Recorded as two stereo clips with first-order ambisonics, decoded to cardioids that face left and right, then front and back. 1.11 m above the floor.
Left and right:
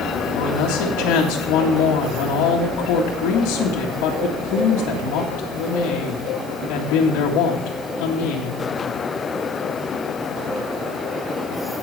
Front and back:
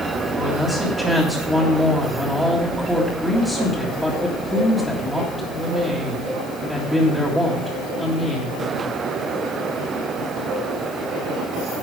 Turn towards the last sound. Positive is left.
turn(degrees=95)